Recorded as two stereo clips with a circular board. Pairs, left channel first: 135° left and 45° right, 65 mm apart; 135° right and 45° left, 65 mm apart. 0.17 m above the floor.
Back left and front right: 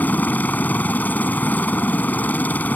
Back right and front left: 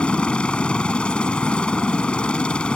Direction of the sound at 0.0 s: 165° left.